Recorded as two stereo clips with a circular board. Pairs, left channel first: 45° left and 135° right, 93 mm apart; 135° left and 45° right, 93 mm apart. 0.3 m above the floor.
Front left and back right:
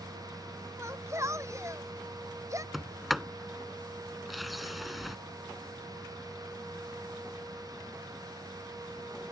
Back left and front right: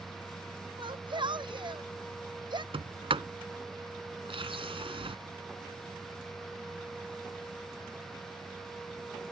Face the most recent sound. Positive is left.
turn(degrees=-45)